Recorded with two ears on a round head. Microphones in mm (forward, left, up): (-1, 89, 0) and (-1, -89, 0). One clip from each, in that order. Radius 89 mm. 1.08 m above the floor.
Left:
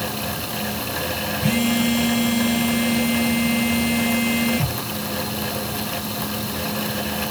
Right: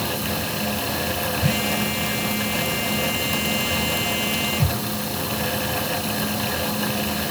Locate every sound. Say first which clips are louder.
1.4 s a phone buzzing: left 4 dB; 80° left, 2.5 m